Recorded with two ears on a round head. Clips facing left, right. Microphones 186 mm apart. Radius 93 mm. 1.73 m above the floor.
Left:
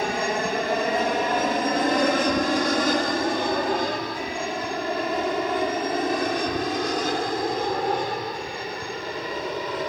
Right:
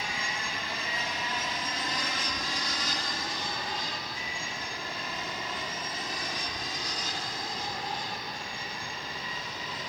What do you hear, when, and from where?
0.0 s an aircraft: 45° left (ahead or behind); by 9.9 s 50° left (ahead or behind)